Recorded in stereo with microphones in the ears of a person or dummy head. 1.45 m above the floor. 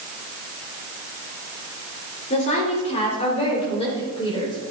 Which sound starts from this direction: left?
A woman speaking, at 2.3 s.